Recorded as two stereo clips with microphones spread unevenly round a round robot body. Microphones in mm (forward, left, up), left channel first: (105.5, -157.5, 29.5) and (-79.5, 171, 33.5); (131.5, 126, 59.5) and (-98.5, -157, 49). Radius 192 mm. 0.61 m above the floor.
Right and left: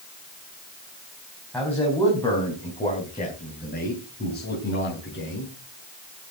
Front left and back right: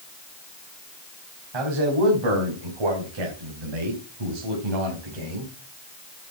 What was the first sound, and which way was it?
A man speaking, 145° right.